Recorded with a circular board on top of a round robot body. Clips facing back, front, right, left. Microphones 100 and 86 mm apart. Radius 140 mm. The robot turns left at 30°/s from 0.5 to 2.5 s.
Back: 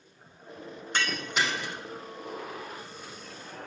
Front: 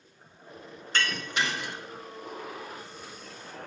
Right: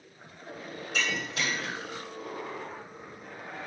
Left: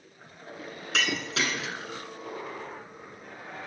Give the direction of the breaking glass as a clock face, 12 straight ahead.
9 o'clock.